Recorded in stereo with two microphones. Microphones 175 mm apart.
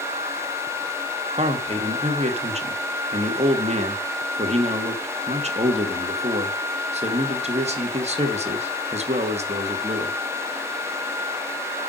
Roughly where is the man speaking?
Right.